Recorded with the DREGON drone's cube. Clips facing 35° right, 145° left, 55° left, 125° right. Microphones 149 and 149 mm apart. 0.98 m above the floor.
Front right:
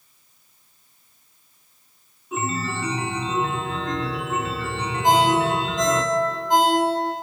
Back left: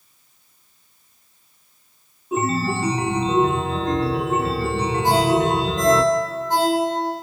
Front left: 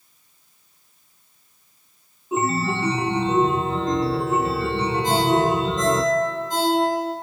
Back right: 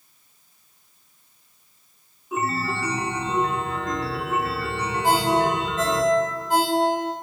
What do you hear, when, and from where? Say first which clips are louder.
2.3 s a chime: back left 6 dB, front left 4 dB; 110° left, 0.6 m
5.0 s a ringtone: even, even; 105° right, 4.5 m